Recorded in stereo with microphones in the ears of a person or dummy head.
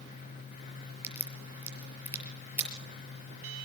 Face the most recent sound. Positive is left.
turn(degrees=-10)  # may be behind; listen again after turning